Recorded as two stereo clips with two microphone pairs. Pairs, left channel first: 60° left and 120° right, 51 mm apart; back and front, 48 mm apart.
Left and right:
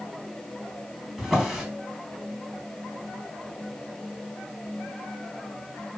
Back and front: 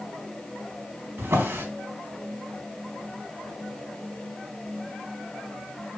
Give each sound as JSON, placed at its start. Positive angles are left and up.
{"t": 1.2, "sound": "a drawer", "azimuth_deg": -30, "distance_m": 4.0}